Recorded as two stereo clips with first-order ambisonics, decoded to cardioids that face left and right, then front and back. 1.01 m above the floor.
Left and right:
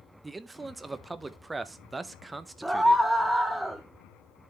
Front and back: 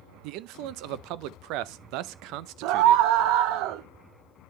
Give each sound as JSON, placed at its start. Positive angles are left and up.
{"t": 0.2, "sound": "a man speaking", "azimuth_deg": -170, "distance_m": 0.6}
{"t": 2.6, "sound": "a scream", "azimuth_deg": -175, "distance_m": 0.5}